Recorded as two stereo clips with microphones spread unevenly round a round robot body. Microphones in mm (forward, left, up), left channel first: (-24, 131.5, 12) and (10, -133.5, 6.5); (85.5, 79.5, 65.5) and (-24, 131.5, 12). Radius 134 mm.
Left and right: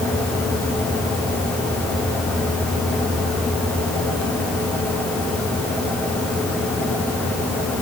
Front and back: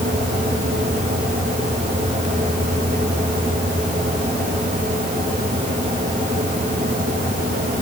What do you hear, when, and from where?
Only background noise.